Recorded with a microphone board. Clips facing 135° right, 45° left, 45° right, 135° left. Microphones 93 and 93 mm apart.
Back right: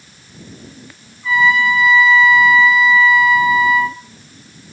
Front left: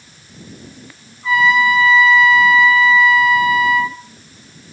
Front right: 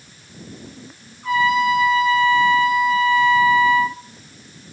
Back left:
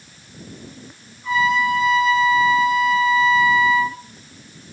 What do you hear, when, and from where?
1.2 s a trumpet: 20° right, 3.5 m